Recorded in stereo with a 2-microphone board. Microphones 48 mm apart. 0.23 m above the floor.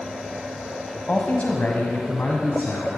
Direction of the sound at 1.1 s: 30° left (ahead or behind).